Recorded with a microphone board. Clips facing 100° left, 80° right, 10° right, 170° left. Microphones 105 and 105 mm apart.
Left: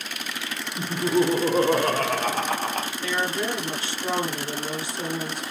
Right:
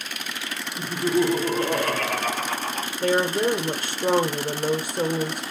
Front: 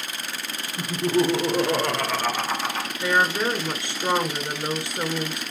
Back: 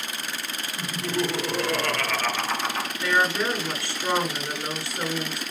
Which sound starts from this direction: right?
A woman speaking, at 3.0 s.